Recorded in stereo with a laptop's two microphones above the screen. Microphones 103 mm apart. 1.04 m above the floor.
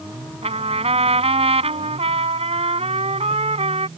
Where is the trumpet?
85° right.